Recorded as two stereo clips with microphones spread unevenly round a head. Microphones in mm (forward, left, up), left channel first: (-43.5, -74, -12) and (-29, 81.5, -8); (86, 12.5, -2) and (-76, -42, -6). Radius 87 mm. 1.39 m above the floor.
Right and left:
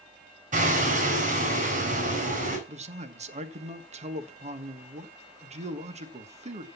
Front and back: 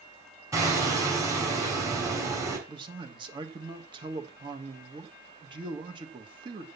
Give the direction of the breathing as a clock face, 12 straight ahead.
I don't hear breathing.